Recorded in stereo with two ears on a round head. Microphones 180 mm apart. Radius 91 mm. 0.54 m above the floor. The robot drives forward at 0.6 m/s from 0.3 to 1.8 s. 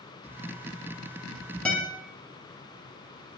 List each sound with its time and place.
1.6 s a guitar: 5° left (ahead or behind), 1.8 m